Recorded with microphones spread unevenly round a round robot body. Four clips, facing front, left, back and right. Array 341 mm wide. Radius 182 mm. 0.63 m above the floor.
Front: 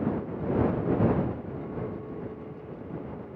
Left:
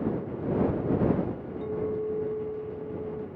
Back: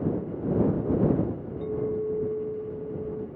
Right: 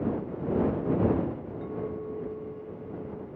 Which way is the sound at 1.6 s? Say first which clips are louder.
Left 6 dB, back 7 dB; 155° left.